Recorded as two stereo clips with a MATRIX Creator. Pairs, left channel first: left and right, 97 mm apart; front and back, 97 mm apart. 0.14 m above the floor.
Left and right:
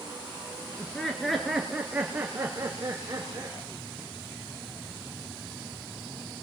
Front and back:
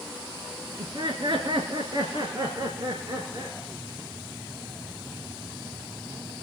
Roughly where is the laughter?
Behind.